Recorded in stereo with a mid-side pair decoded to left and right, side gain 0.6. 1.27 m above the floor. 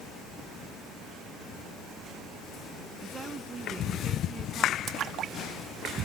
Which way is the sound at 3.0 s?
30° right.